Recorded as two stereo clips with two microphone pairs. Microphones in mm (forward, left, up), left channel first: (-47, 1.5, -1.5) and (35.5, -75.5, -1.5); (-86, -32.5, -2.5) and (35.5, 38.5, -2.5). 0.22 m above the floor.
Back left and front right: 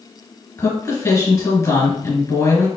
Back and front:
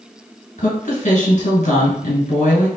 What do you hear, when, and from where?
0.6 s a woman speaking: 170° right, 2.5 m